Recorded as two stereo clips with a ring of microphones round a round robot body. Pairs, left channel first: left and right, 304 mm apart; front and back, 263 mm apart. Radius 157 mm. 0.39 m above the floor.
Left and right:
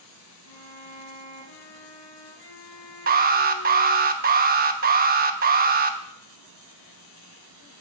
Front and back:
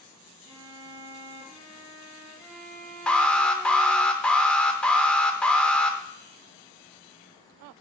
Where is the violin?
95° left, 5.5 m.